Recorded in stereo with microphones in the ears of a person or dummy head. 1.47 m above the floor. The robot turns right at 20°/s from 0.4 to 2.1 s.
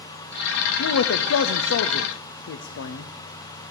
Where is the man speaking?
80° left, 0.5 m; by 3.1 s 60° left (ahead or behind), 0.5 m.